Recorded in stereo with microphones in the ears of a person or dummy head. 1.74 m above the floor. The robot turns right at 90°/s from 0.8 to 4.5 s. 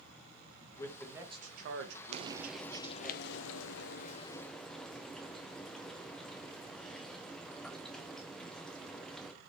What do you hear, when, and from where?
0.8 s a man speaking: 155° left, 1.0 m; by 3.1 s 5° left, 1.0 m
2.1 s frying: 45° right, 0.5 m; by 9.3 s 170° left, 0.5 m